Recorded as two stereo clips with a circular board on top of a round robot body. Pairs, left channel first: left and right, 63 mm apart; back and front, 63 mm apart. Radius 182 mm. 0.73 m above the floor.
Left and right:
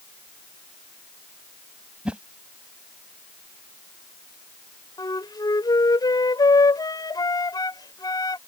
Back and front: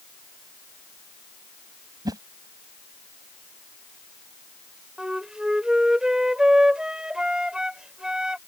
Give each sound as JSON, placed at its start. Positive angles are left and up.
{"t": 2.0, "sound": "a whoosh", "azimuth_deg": -15}
{"t": 5.0, "sound": "a flute", "azimuth_deg": 80}